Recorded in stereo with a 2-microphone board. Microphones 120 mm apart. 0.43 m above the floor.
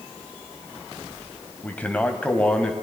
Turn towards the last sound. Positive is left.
turn(degrees=10)  # may be behind; listen again after turning